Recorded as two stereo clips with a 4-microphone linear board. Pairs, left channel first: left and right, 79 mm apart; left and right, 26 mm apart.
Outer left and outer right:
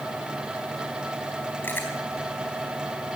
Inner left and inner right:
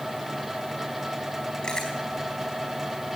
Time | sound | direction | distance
1.6 | chewing | 30° left (ahead or behind) | 4 m